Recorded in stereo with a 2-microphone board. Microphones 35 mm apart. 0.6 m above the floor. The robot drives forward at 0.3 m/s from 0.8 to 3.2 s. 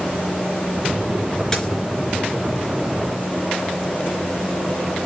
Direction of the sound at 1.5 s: 10° left (ahead or behind).